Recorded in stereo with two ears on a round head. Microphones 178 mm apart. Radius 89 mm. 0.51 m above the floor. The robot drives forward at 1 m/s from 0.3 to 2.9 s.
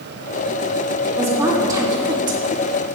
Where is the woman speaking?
15° right (ahead or behind), 2 m; by 2.9 s 25° right (ahead or behind), 1.3 m.